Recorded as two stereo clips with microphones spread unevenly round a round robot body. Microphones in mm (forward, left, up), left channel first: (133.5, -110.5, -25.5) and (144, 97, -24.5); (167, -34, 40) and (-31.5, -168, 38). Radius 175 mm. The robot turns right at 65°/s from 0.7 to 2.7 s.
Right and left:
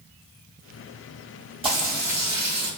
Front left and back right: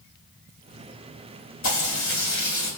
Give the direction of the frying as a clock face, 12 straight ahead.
11 o'clock.